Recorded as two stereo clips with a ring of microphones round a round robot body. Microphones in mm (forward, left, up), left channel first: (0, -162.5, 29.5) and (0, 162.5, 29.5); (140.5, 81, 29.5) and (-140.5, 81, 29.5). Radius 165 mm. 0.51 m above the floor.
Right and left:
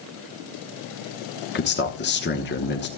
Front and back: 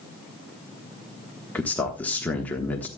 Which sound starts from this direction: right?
A man speaking, at 1.6 s.